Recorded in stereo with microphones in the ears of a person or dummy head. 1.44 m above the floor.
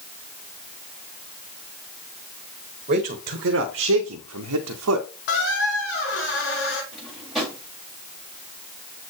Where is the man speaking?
30° right (ahead or behind), 1.1 m; by 5.1 s 80° right, 1.0 m.